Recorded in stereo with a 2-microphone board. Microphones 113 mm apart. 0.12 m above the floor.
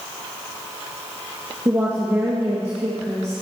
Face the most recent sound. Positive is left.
turn(degrees=-25)  # may be behind; listen again after turning